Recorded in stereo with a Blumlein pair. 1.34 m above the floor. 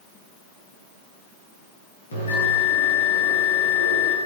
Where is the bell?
70° left, 8.5 m.